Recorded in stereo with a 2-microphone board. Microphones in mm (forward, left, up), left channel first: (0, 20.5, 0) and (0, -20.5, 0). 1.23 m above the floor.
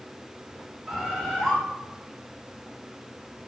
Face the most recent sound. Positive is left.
turn(degrees=-5)  # may be behind; listen again after turning